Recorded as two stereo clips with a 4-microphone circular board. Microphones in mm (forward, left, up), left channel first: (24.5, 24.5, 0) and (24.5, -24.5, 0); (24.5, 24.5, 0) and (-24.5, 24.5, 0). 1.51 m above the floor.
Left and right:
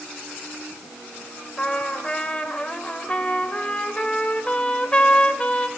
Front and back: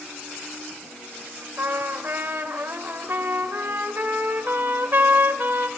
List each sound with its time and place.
1.6 s a trumpet: 155° left, 2 m